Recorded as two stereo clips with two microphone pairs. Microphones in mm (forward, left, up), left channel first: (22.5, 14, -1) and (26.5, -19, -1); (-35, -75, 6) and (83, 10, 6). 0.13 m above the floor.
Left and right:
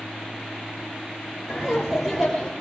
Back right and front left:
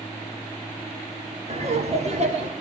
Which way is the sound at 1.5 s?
5° right.